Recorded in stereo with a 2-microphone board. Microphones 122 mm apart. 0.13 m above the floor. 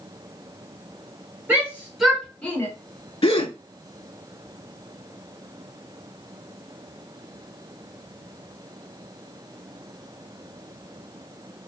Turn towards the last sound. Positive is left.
turn(degrees=50)  # may be behind; listen again after turning